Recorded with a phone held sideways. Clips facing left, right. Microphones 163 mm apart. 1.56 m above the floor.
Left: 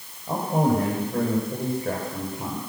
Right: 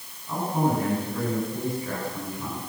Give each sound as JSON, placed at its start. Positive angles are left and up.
{"t": 0.3, "sound": "a man speaking", "side_deg": 70, "distance_m": 9.0}